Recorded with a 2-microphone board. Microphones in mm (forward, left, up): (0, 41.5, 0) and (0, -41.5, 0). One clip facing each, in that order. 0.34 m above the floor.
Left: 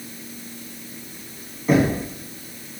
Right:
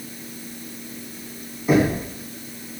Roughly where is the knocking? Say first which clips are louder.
Even; centre.